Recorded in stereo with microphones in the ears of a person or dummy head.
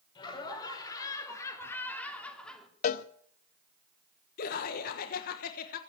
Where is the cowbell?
55° left (ahead or behind), 0.8 m.